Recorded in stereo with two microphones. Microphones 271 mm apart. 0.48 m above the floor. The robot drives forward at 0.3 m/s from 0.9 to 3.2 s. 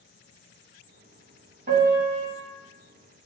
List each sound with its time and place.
1.7 s a piano: 40° right (ahead or behind), 0.7 m; by 2.3 s 30° right (ahead or behind), 0.9 m